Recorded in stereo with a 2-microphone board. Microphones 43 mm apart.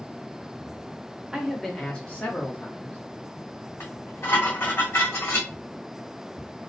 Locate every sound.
1.3 s a man speaking: 15° right (ahead or behind), 0.7 m; by 3.0 s 55° left (ahead or behind), 1.2 m
3.8 s dishes clattering: 60° left (ahead or behind), 1.5 m